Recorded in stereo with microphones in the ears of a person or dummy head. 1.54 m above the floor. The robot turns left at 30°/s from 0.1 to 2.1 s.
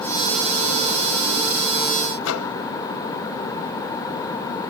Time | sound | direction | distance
2.2 | a microwave | 75° left (ahead or behind) | 0.7 m